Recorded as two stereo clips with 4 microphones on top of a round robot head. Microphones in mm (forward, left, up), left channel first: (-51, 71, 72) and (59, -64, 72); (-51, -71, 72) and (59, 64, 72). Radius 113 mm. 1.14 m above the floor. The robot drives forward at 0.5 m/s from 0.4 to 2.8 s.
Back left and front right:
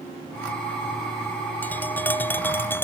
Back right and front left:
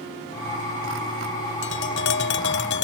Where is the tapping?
150° right; by 2.8 s 155° right.